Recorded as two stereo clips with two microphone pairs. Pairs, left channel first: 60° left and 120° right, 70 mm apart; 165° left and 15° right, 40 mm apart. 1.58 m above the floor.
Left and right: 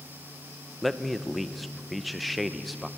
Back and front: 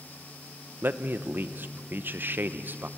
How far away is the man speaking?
About 0.9 m.